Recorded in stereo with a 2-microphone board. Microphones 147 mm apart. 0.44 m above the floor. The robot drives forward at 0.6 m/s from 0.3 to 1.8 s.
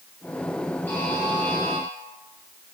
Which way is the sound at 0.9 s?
10° left (ahead or behind).